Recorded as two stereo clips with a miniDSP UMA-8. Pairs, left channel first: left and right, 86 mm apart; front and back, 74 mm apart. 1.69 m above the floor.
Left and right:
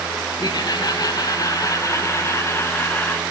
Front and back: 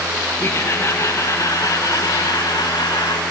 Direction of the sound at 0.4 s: 55° left.